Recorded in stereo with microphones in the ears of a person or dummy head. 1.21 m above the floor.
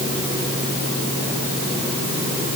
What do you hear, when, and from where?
Only background noise.